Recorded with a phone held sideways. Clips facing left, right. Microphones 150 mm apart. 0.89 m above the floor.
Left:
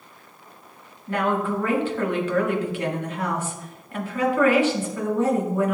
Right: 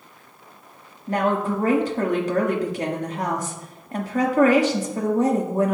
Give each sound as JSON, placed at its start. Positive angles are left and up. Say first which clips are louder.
{"t": 1.1, "sound": "a woman speaking", "louder": "right 2 dB", "side_deg": -40, "distance_m": 1.6}